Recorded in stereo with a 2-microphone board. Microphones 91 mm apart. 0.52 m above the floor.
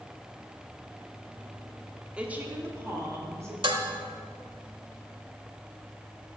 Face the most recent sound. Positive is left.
turn(degrees=-65)  # may be behind; listen again after turning